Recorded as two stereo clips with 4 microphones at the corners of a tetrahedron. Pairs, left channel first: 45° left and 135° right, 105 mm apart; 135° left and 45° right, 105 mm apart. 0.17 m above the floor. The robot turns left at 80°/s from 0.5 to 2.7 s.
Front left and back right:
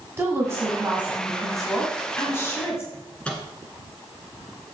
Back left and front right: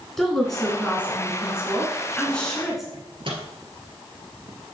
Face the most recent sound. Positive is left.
turn(degrees=-30)